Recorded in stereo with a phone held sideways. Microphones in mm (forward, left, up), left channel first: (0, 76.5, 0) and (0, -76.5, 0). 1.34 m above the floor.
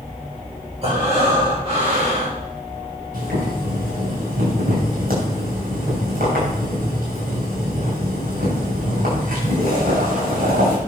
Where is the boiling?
70° right (ahead or behind), 7.5 m.